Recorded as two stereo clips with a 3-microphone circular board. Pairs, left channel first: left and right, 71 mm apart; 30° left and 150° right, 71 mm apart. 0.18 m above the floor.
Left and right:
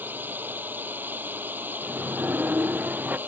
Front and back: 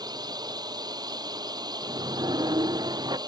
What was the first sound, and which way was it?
A drone, 150° right.